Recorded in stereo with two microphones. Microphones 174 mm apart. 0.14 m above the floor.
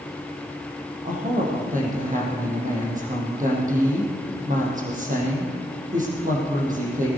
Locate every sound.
1.1 s a woman speaking: 45° right (ahead or behind), 5 m